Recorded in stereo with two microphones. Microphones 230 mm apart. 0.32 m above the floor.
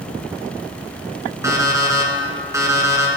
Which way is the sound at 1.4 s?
15° right (ahead or behind).